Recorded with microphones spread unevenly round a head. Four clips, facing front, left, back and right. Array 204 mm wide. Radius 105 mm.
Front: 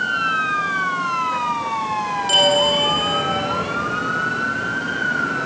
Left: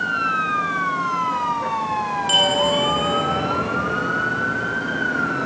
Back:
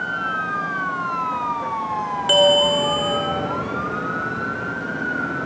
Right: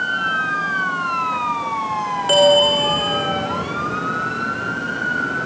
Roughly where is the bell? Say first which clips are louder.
Right 8 dB, back 3 dB; behind right.